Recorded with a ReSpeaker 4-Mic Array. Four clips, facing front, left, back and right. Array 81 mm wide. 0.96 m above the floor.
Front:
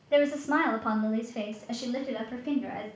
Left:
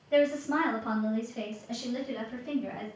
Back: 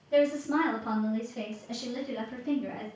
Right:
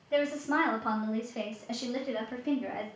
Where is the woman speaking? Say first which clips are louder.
Left 3 dB, front 1 dB; straight ahead, 1.0 m; by 2.9 s 50° right, 2.5 m.